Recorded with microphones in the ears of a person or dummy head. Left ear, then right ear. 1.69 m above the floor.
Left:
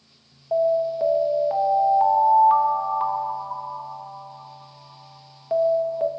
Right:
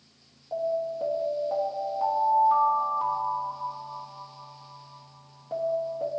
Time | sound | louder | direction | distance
0.5 | an alarm | left 8 dB | 35° left (ahead or behind) | 1.1 m